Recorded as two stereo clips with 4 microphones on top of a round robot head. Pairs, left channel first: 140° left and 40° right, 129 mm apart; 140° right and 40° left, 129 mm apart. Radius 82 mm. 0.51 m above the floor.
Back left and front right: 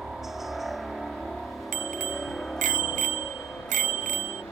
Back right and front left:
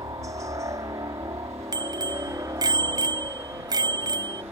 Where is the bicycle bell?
20° right.